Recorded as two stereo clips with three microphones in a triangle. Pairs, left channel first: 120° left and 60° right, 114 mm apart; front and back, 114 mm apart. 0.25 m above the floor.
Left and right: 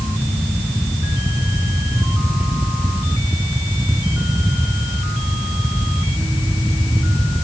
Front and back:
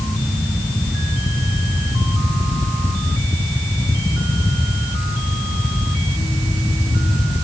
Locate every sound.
Only background noise.